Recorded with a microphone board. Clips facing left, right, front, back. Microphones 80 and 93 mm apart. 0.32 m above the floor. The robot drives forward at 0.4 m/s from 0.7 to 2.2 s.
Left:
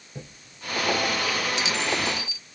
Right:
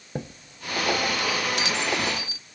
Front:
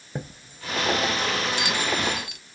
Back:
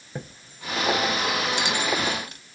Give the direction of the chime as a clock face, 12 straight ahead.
3 o'clock.